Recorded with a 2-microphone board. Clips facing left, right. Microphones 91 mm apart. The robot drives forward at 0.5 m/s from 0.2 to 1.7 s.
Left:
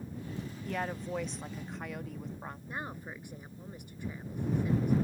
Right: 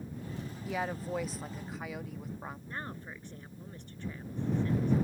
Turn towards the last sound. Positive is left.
turn(degrees=10)  # may be behind; listen again after turning